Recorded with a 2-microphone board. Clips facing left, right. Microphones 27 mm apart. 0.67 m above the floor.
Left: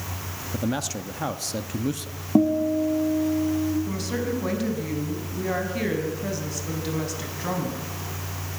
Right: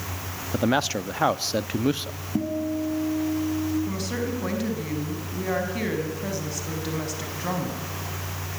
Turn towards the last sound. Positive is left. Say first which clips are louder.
# left 1 dB
turn(degrees=5)  # may be behind; listen again after turning